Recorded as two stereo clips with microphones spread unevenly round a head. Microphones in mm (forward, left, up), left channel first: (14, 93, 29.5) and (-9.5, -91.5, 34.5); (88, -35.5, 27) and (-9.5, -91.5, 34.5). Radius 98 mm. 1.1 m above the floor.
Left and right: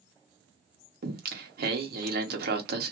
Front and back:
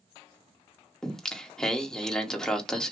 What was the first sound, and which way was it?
Singing, 55° right.